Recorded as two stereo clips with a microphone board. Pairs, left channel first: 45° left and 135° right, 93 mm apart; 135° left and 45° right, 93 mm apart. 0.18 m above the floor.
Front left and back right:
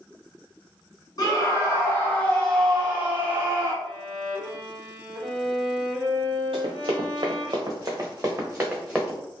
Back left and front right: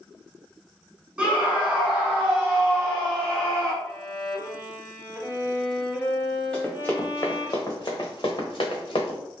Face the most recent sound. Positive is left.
turn(degrees=145)